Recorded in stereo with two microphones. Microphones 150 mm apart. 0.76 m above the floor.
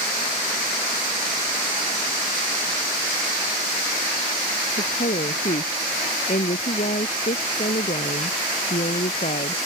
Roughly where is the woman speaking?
Left.